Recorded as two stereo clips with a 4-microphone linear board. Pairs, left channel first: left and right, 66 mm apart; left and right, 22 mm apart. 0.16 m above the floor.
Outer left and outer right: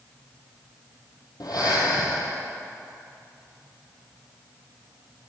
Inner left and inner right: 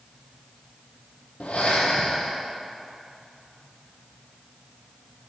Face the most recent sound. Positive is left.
turn(degrees=75)  # may be behind; listen again after turning